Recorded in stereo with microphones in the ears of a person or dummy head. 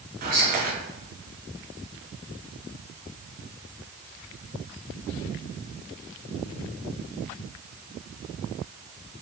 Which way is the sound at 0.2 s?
45° right (ahead or behind).